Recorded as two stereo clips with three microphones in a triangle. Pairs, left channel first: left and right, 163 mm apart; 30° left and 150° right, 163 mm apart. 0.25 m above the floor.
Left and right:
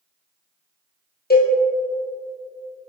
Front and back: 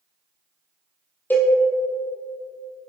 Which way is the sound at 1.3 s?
110° left.